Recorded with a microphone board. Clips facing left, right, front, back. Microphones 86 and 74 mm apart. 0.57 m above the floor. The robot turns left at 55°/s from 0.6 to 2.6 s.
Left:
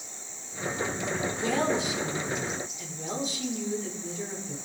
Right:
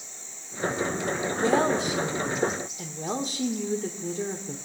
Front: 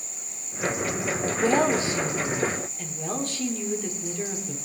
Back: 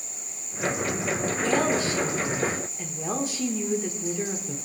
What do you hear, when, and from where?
1.4 s a woman speaking: 35° right, 1.2 m; by 4.6 s 105° right, 1.2 m